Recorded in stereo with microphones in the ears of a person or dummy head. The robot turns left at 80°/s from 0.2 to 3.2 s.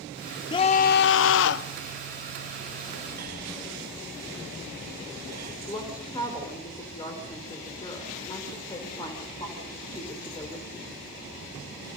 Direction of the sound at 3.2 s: 50° right (ahead or behind).